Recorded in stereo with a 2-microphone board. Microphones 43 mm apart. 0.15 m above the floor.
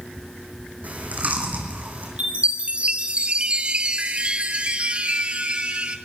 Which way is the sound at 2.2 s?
25° right (ahead or behind).